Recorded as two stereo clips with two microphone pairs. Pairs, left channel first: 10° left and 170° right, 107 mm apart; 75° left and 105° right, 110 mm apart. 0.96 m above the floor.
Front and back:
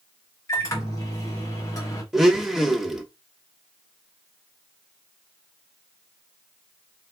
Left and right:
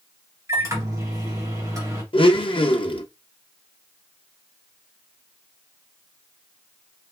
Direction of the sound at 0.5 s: 50° right.